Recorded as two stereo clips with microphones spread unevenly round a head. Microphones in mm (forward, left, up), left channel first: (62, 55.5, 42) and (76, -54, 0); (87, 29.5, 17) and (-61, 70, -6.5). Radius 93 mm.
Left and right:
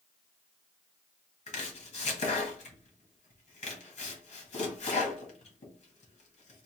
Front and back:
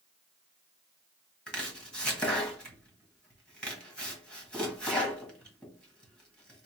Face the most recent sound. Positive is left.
turn(degrees=70)